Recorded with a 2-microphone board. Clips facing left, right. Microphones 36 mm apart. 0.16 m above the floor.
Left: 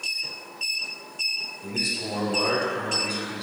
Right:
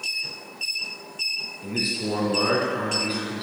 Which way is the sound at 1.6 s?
20° right (ahead or behind).